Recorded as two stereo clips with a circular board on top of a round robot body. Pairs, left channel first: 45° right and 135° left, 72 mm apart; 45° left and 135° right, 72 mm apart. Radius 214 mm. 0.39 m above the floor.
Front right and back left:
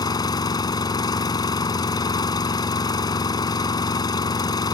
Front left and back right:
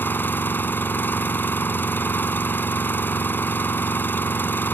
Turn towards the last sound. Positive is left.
turn(degrees=-20)